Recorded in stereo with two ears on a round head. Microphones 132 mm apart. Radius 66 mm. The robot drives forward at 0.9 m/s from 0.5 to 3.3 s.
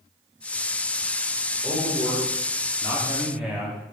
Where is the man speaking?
5° right (ahead or behind), 2.5 m.